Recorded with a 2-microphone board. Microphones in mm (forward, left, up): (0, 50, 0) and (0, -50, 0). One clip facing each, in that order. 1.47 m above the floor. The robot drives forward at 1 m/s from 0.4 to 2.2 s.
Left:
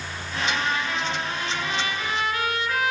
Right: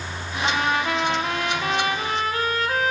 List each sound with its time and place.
0.4 s a trumpet: 45° right (ahead or behind), 1.2 m; by 2.9 s 40° right (ahead or behind), 1.3 m